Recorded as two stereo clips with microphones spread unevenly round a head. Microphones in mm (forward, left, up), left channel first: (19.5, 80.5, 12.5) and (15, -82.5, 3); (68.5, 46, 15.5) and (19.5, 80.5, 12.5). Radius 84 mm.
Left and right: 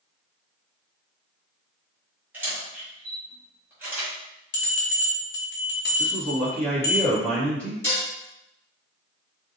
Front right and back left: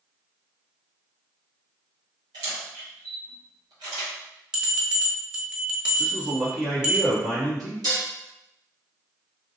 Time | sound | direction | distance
2.3 | a camera shutter | 170° right | 1.0 m
4.5 | a bell | 70° left | 0.9 m
6.0 | a man speaking | 170° left | 1.3 m
7.8 | dishes clattering | 165° left | 1.1 m